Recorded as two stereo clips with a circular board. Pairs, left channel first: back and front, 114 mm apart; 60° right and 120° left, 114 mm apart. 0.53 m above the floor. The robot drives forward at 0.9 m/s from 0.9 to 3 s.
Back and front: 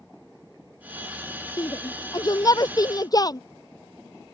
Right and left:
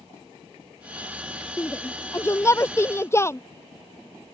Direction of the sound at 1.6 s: 125° right.